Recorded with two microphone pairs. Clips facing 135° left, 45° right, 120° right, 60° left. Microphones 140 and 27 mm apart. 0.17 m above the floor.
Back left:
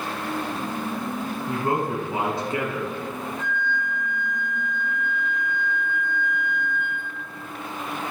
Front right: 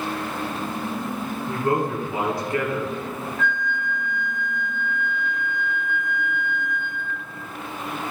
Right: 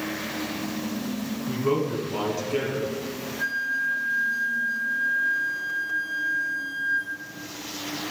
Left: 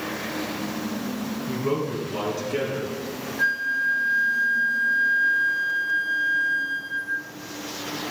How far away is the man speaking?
About 1.6 m.